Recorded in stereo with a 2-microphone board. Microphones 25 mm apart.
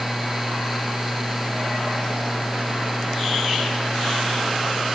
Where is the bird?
I don't hear a bird.